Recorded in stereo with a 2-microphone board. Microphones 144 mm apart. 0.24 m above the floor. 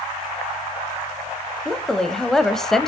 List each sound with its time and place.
1.6 s a woman speaking: 5° left (ahead or behind), 0.9 m